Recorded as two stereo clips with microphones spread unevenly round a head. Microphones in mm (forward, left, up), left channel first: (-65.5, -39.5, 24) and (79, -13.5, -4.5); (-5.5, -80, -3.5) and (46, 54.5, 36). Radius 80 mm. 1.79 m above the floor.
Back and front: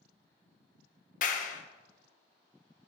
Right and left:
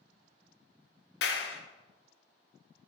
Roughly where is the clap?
Behind right.